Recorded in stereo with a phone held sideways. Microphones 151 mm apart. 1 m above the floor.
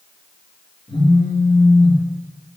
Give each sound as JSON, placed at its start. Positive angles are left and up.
{"t": 0.9, "sound": "a phone buzzing", "side_deg": 40, "distance_m": 1.4}